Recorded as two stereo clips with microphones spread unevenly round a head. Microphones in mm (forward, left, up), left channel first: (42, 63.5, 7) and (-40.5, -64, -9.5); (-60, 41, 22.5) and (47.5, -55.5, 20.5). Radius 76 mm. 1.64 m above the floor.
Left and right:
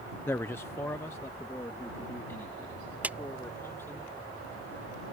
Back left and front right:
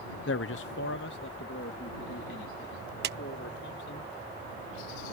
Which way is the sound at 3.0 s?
40° right.